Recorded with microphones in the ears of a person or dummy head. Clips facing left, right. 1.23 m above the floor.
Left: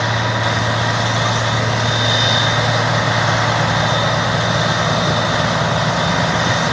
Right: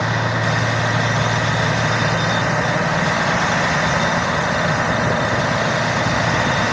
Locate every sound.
Only background noise.